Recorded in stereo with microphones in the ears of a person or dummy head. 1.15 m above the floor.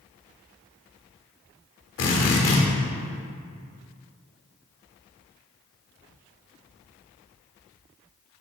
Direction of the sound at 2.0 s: 65° left (ahead or behind).